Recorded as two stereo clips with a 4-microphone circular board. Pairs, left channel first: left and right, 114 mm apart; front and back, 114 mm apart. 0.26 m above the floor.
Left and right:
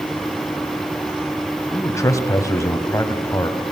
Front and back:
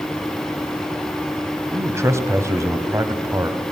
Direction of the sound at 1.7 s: 135° left.